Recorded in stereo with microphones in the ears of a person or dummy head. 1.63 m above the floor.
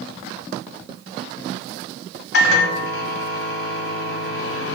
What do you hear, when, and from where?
2.3 s a microwave: 65° left (ahead or behind), 0.7 m